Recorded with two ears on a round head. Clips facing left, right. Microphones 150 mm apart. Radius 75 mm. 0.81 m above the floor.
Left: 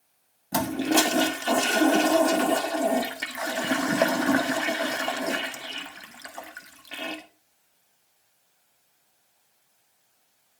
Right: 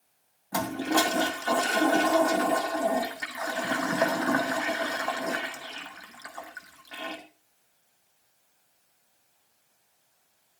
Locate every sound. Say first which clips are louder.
0.5 s a toilet flushing: left 3 dB; 30° left (ahead or behind), 1.3 m